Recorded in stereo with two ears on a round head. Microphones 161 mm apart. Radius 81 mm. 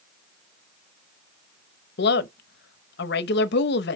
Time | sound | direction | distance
2.0 | a woman speaking | 65° left (ahead or behind) | 0.9 m